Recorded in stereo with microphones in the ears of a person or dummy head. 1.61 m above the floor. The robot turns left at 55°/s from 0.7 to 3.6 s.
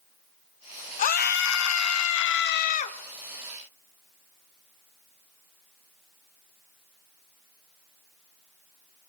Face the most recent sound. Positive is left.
turn(degrees=-5)